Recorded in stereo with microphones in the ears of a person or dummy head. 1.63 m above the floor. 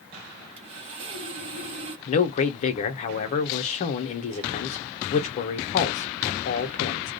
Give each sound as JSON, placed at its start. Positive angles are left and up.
{"t": 0.6, "sound": "sawing", "side_deg": -40, "distance_m": 0.9}
{"t": 2.1, "sound": "a man speaking", "side_deg": 40, "distance_m": 0.7}